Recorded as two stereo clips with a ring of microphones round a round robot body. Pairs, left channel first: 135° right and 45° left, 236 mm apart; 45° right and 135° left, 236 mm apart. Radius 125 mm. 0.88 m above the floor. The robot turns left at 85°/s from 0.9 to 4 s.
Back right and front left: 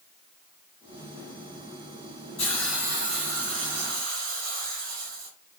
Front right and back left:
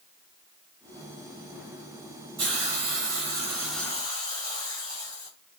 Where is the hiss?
160° left, 3 m; by 5.3 s 25° left, 3 m.